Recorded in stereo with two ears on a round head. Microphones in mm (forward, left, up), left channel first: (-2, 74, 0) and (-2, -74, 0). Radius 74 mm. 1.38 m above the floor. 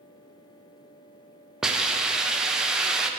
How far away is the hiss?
About 0.5 m.